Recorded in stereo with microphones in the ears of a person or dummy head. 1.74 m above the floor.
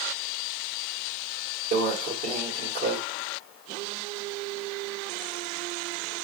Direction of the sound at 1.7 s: 40° right (ahead or behind).